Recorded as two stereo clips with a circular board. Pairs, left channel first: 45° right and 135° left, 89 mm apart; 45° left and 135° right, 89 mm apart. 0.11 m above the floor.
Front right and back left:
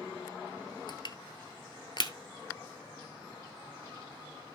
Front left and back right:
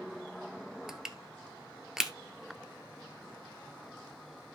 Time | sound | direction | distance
0.9 | crushing | 50° right | 0.9 m